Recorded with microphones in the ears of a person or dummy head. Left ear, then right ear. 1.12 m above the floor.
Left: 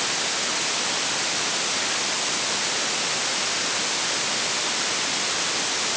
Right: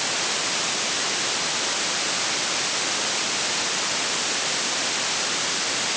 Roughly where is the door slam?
No door slam in this recording.